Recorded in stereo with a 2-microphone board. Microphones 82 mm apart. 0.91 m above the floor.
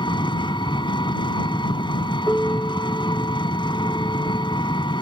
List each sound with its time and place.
0.0 s an engine running: 85° left
2.3 s a piano: 25° left (ahead or behind)